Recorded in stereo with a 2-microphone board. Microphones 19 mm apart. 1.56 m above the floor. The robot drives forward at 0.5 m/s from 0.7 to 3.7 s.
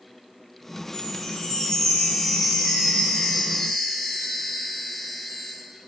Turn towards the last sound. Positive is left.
turn(degrees=25)  # may be behind; listen again after turning